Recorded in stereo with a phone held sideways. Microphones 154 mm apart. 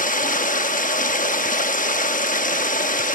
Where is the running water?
60° left (ahead or behind), 0.8 m.